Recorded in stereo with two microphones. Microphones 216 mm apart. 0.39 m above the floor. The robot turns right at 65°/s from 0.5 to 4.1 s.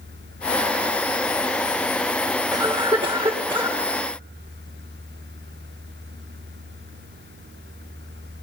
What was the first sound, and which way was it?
A cough, 20° right (ahead or behind).